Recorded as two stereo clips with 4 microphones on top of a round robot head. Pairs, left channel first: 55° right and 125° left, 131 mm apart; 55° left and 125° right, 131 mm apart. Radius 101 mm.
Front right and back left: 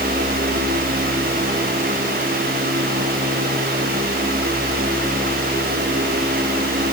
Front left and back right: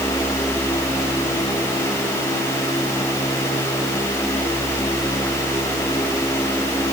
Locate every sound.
Only background noise.